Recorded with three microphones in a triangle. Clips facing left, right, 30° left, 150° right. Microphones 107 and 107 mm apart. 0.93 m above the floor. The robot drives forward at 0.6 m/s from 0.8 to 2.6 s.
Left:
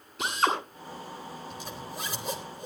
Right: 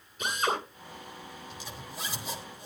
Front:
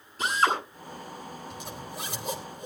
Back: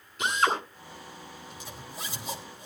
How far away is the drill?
About 8.5 m.